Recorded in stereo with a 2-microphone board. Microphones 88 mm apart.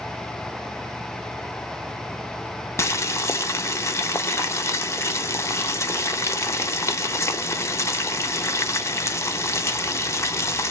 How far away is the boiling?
About 0.5 m.